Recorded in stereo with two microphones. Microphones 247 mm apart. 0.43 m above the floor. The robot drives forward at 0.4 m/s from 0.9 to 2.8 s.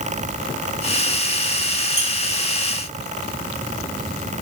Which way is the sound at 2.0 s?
20° right (ahead or behind).